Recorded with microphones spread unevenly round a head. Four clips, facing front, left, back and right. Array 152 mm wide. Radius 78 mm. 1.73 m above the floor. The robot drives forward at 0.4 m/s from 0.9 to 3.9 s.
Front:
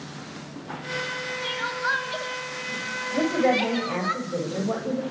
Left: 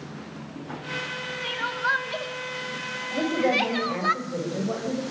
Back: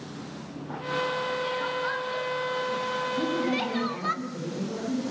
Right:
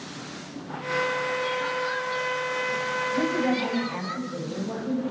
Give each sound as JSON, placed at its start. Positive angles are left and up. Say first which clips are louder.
{"t": 1.4, "sound": "crying", "louder": "right 1 dB, even", "azimuth_deg": 55, "distance_m": 3.0}
{"t": 3.1, "sound": "a woman speaking", "louder": "left 3 dB, front 8 dB", "azimuth_deg": 25, "distance_m": 9.5}